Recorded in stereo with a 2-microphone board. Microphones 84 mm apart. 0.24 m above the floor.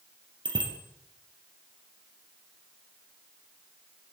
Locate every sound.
0.5 s a bicycle bell: 65° right (ahead or behind), 4.5 m